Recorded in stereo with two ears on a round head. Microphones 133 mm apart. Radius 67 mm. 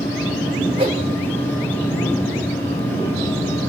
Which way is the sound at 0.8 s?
35° right (ahead or behind).